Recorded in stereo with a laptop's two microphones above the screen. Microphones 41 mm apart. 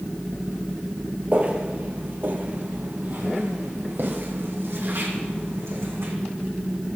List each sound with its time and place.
1.3 s footsteps: 35° right (ahead or behind), 1.5 m; by 6.1 s 70° right (ahead or behind), 4 m